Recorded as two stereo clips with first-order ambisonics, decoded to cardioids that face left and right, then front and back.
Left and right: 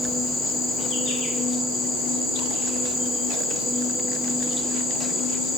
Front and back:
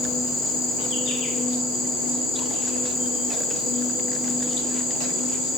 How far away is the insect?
About 0.8 m.